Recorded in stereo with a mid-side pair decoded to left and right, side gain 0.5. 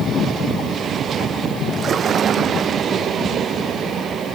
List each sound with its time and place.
1.7 s a splash: 50° right